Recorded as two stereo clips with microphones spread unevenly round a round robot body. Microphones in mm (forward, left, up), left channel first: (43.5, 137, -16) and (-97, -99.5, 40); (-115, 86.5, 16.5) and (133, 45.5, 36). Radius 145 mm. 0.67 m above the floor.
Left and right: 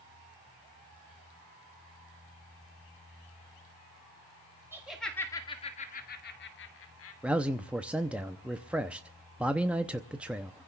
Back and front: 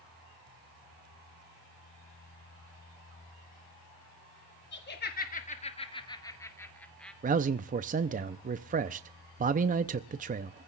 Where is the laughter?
150° left, 1.5 m; by 7.1 s 85° left, 2.5 m.